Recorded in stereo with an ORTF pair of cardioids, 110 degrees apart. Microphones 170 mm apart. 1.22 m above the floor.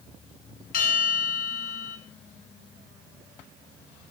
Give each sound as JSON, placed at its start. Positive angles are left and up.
{"t": 0.7, "sound": "a bell", "azimuth_deg": 60, "distance_m": 9.0}